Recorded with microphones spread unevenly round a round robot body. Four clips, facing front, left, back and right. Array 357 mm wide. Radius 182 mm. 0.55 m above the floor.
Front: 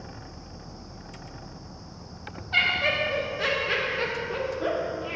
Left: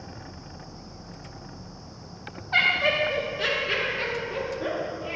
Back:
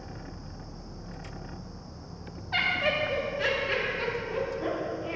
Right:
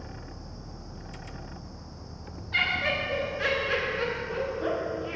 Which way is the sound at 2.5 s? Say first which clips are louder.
Left 5 dB, front 1 dB; 125° left.